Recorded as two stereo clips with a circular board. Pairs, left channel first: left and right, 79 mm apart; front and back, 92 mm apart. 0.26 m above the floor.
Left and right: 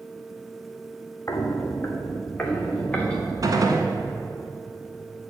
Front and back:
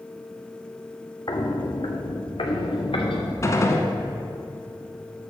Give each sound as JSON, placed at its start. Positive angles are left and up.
{"t": 1.3, "sound": "footsteps", "azimuth_deg": 40, "distance_m": 1.2}
{"t": 3.4, "sound": "a gunshot", "azimuth_deg": -55, "distance_m": 0.9}